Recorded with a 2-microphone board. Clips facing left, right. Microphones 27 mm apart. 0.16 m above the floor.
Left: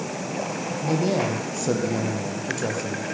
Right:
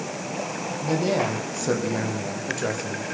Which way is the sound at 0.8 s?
10° right (ahead or behind).